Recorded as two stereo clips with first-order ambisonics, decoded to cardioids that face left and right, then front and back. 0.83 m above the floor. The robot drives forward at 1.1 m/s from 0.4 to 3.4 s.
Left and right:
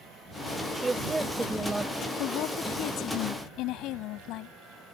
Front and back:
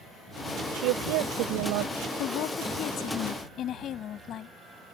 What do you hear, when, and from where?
0.7 s a woman speaking: 170° right; by 2.1 s 175° right
2.2 s a woman speaking: 45° left; by 4.5 s 55° left